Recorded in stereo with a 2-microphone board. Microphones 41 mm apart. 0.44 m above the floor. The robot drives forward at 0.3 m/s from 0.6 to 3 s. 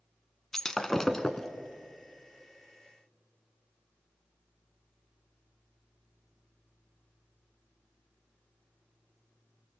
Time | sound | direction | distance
0.5 | breaking glass | 10° left (ahead or behind) | 1.0 m